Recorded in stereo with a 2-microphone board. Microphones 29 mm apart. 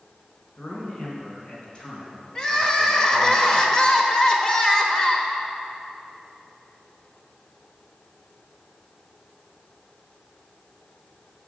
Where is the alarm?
No alarm in this recording.